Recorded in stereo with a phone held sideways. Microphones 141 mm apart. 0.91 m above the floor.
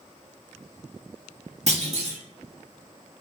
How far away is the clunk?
About 1.4 m.